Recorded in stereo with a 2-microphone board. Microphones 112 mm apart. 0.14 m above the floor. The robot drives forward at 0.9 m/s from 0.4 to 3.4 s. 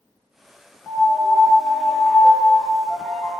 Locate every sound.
0.9 s a piano: 15° left (ahead or behind), 1.5 m; by 3.3 s 5° left (ahead or behind), 3.5 m